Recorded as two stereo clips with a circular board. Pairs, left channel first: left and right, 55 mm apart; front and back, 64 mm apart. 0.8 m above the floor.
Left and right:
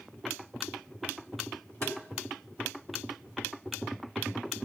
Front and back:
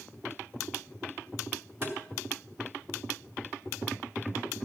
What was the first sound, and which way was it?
Tapping, 125° left.